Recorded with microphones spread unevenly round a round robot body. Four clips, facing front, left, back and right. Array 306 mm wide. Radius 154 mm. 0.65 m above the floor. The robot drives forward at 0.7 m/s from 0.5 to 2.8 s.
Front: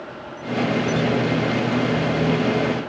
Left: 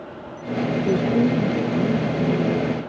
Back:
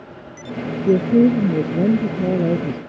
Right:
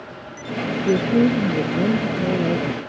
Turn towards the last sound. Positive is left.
turn(degrees=-175)